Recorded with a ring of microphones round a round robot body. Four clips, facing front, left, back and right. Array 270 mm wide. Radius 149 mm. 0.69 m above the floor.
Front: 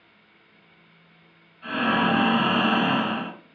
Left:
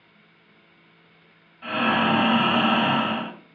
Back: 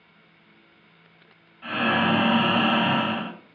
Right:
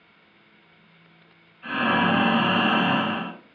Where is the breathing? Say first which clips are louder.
Even, even; 110° left, 2.5 m.